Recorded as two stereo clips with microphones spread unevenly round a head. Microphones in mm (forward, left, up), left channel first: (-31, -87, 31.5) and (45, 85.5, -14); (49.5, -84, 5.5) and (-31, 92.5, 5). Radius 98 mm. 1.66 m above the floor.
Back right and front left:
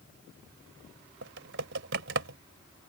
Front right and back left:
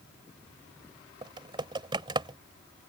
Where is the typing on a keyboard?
60° left.